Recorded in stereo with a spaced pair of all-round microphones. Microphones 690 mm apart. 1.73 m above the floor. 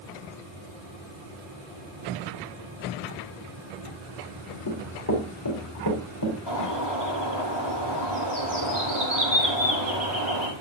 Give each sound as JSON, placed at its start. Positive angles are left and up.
{"t": 4.7, "sound": "running footsteps", "side_deg": 25, "distance_m": 4.0}
{"t": 6.5, "sound": "a bird", "side_deg": 40, "distance_m": 5.5}